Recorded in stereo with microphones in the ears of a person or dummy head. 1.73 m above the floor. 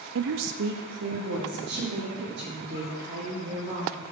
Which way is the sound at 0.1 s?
65° right (ahead or behind).